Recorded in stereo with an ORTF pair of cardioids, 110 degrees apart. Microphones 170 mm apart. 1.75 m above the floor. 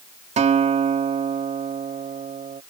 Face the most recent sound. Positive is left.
turn(degrees=-40)